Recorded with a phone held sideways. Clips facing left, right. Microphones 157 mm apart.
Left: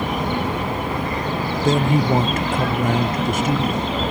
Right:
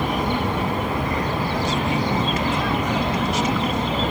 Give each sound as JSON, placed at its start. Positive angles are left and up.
{"t": 1.6, "sound": "a man speaking", "side_deg": 50}